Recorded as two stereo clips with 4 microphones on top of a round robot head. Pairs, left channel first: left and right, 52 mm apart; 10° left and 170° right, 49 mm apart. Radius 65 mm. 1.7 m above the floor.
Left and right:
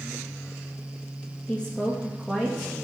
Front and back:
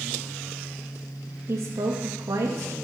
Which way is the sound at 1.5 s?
160° left.